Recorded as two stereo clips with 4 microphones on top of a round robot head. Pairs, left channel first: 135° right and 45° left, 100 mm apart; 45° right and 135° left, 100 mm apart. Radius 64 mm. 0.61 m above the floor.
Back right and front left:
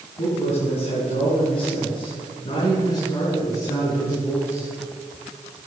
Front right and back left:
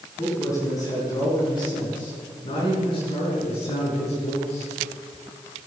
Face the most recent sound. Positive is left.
turn(degrees=-60)